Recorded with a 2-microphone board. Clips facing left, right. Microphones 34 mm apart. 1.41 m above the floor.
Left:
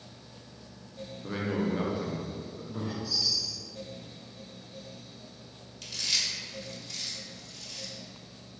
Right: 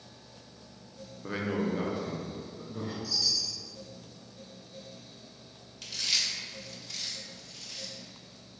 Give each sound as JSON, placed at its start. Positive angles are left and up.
{"t": 1.2, "sound": "a man speaking", "side_deg": -20, "distance_m": 0.7}
{"t": 3.0, "sound": "a chime", "side_deg": 40, "distance_m": 1.3}
{"t": 5.8, "sound": "chewing", "side_deg": -5, "distance_m": 1.1}